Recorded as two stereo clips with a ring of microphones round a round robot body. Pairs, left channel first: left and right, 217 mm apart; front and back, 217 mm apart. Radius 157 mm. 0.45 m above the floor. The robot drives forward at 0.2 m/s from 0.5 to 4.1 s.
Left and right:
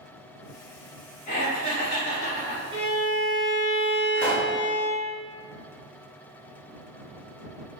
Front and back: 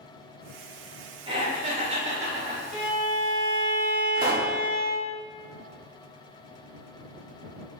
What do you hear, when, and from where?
1.3 s laughter: 125° left, 1.4 m; by 2.6 s 140° left, 1.5 m
2.7 s a violin: 40° right, 1.3 m; by 5.1 s 50° right, 1.2 m
4.2 s a pop: 155° left, 0.7 m